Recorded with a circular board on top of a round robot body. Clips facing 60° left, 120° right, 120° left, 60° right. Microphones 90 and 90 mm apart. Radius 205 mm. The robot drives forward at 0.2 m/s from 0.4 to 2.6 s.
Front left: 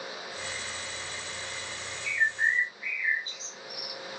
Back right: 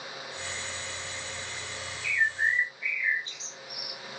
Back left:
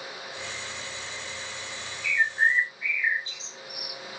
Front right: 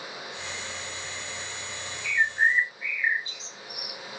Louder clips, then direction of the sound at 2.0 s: Even, even; 135° right.